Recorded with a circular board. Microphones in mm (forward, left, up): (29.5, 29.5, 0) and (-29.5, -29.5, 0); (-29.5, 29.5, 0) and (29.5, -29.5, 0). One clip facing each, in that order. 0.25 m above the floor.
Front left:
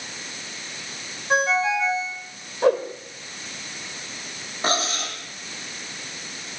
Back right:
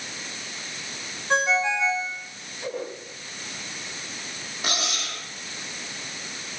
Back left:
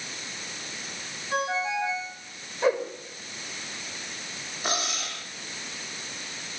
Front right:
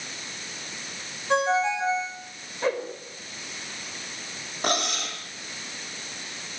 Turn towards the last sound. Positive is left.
turn(degrees=-10)